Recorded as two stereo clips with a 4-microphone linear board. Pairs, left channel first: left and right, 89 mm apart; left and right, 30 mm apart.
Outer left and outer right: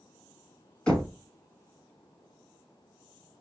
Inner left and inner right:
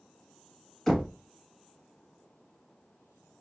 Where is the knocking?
10° left (ahead or behind), 1.2 m.